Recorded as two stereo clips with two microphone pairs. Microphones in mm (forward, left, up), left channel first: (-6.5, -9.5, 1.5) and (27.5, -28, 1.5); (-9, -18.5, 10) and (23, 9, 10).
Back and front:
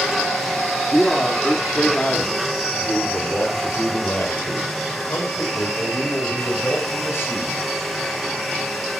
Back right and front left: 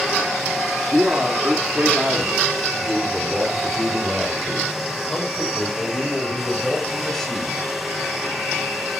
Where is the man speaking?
75° left, 1.7 m; by 7.6 s 140° left, 4.5 m.